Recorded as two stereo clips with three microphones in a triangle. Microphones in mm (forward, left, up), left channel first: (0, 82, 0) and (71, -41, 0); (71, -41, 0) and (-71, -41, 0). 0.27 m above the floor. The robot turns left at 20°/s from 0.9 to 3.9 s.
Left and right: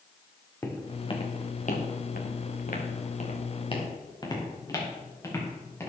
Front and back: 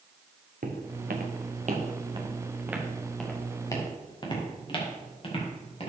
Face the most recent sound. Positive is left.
turn(degrees=50)